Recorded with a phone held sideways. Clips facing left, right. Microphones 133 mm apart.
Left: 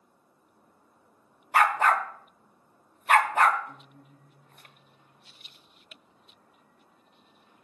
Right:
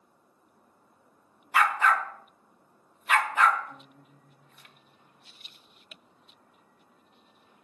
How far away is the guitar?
About 3 m.